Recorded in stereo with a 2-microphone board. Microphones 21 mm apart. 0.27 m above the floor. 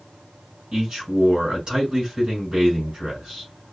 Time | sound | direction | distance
0.7 | a man speaking | 45° right (ahead or behind) | 3.5 m